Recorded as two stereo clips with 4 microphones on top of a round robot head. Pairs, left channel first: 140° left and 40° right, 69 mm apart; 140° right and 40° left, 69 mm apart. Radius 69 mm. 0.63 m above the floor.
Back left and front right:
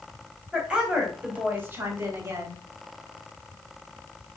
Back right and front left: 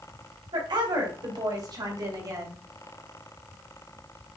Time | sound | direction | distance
0.5 | a woman speaking | 40° left | 4 m